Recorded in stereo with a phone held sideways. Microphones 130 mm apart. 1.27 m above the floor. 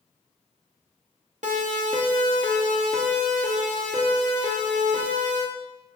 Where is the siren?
65° right (ahead or behind), 3.5 m; by 5.4 s 75° right (ahead or behind), 7 m.